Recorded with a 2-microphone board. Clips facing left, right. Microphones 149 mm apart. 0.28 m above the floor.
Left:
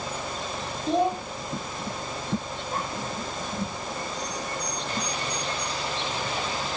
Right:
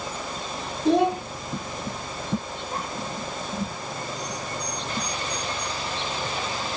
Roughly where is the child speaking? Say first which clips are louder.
Right 4 dB; right.